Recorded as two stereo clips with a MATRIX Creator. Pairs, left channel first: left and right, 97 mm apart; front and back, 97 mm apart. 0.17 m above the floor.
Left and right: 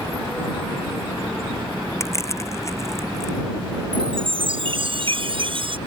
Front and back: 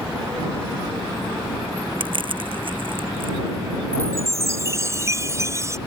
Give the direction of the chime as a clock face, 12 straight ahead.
4 o'clock.